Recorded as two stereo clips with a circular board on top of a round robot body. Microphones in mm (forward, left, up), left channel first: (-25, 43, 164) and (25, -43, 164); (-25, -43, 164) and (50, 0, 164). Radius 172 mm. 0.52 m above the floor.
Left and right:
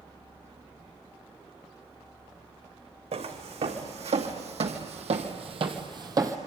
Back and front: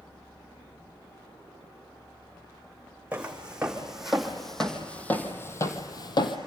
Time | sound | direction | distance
3.1 | footsteps | 45° right | 3 m